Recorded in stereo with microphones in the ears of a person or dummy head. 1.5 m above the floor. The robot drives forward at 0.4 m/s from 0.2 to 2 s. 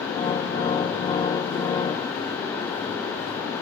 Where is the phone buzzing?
No phone buzzing in this recording.